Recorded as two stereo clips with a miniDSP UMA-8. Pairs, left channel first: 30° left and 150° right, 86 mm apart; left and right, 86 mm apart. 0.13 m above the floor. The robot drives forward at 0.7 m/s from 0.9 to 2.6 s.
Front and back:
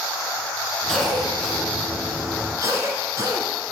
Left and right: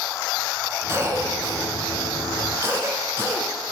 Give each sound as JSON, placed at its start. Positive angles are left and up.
{"t": 0.9, "sound": "a cough", "azimuth_deg": -55, "distance_m": 1.5}